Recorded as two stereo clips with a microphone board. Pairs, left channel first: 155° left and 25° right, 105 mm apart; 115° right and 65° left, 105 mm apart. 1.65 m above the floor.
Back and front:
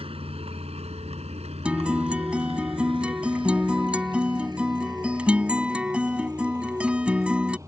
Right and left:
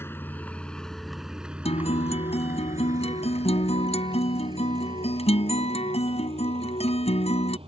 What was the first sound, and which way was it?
A vehicle, 45° right.